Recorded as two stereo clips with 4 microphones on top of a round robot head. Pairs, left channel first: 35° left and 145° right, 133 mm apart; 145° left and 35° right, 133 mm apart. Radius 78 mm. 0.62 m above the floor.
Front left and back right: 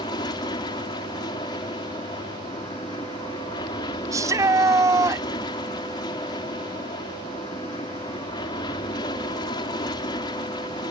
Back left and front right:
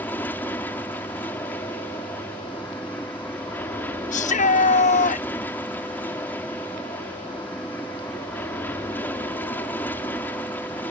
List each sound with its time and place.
0.0 s an aircraft: 75° left
4.1 s a shout: 150° left